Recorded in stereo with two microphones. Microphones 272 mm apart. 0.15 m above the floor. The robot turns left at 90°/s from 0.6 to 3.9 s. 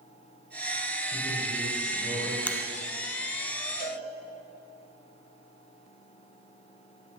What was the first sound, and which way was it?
A man speaking, 55° right.